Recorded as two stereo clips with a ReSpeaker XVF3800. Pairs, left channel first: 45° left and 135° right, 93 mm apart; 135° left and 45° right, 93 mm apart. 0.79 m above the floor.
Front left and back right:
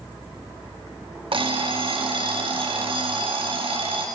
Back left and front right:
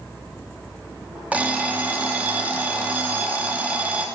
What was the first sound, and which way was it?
An alarm clock, 120° right.